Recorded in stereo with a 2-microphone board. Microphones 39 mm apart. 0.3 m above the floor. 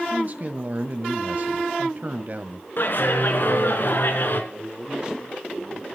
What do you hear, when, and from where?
0.1 s a man speaking: 45° right (ahead or behind), 1.6 m
2.8 s a clap: 55° left (ahead or behind), 4 m
4.5 s a man speaking: 20° right (ahead or behind), 7 m